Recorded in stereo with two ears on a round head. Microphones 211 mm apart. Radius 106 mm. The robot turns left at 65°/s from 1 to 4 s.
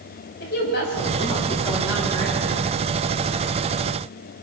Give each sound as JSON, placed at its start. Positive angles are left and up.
{"t": 0.4, "sound": "a woman speaking", "azimuth_deg": 45, "distance_m": 7.5}